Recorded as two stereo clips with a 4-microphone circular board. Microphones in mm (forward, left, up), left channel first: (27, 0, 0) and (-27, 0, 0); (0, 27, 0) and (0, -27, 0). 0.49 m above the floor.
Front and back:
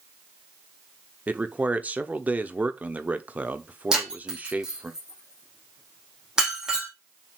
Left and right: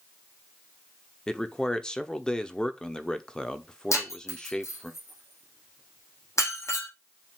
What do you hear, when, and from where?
1.3 s a man speaking: 150° left, 0.8 m
3.9 s breaking glass: 100° left, 4.5 m